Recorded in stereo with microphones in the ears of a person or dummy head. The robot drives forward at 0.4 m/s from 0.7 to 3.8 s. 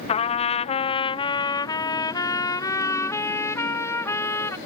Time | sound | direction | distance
0.1 | a trumpet | 30° left (ahead or behind) | ?